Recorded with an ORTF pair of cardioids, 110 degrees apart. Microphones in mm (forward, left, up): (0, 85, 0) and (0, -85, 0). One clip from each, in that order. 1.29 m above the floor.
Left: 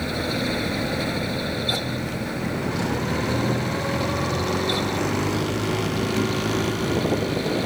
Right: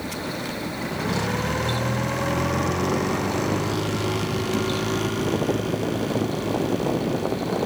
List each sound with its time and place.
0.0 s a fan: 45° left